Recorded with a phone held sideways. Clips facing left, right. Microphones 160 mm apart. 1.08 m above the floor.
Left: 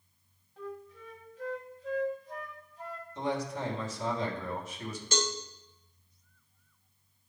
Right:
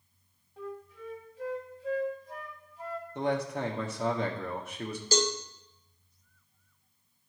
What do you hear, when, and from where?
0.6 s a flute: 15° right (ahead or behind), 1.2 m
3.1 s a man speaking: 60° right (ahead or behind), 1.4 m
5.1 s a cowbell: 35° right (ahead or behind), 0.9 m